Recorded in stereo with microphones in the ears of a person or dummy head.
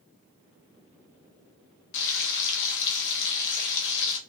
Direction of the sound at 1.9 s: 70° left (ahead or behind).